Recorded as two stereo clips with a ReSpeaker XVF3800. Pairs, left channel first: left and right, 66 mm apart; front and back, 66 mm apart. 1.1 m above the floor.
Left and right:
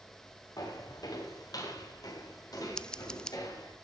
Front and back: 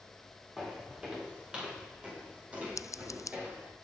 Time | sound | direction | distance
0.6 | footsteps | 100° left | 6 m
2.8 | scissors | 15° left | 0.5 m